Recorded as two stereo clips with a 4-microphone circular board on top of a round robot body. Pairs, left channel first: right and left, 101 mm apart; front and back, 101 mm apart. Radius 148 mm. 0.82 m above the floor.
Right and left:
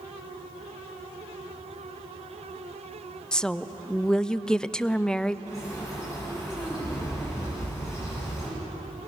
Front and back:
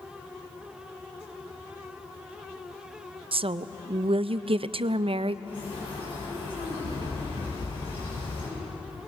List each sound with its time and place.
3.3 s a woman speaking: 170° right, 0.6 m
5.5 s a bird: 25° right, 8.5 m